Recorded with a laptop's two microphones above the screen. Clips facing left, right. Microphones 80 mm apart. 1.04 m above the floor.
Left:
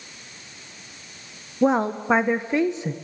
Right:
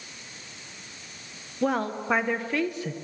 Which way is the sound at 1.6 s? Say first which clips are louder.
Left 6 dB; 20° left (ahead or behind).